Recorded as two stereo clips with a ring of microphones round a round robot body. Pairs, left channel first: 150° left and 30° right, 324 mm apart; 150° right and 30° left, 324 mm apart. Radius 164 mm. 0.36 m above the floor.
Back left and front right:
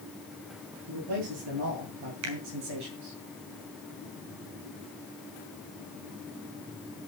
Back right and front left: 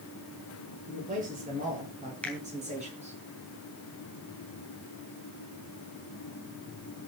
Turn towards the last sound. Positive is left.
turn(degrees=-65)